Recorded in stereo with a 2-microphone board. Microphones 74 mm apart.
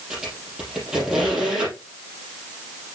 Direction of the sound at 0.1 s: 10° right (ahead or behind).